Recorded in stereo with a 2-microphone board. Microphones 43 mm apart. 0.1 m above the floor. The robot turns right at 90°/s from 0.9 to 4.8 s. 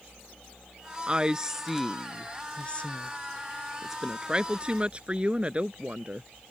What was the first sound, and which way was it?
A woman speaking, 25° right (ahead or behind).